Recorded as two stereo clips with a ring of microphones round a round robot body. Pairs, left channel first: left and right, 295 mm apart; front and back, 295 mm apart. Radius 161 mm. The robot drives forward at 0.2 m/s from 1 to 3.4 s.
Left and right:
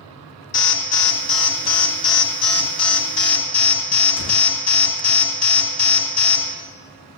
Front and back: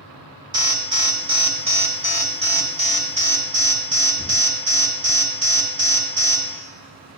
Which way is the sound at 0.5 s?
110° left.